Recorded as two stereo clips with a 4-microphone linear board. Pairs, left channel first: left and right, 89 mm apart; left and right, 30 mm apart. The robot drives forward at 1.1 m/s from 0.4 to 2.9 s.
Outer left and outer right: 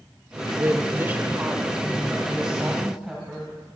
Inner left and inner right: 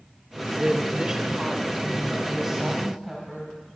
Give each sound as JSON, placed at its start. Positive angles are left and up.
{"t": 0.6, "sound": "a woman speaking", "side_deg": -25, "distance_m": 0.8}